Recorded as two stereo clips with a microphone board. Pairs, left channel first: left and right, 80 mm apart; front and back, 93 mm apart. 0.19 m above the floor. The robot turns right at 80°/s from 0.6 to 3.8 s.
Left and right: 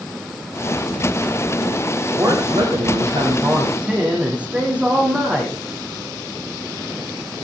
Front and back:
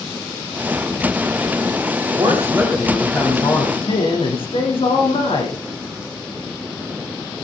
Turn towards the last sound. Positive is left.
turn(degrees=-15)